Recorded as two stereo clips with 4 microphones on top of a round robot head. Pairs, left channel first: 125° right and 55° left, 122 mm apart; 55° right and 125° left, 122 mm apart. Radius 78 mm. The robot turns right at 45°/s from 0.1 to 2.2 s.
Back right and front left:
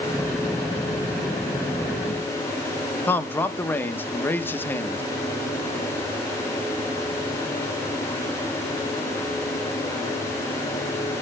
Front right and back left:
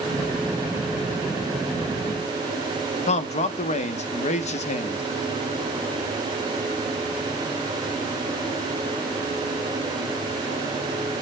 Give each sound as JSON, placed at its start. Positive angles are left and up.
{"t": 3.1, "sound": "a man speaking", "azimuth_deg": -55, "distance_m": 0.9}